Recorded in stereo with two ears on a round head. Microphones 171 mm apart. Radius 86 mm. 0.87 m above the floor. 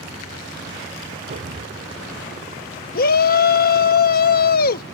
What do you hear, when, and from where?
1.3 s an explosion: 50° right (ahead or behind)
3.0 s a shout: 50° left (ahead or behind)